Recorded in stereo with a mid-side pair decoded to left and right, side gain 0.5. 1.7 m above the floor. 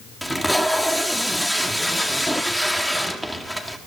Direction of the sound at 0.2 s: 5° left.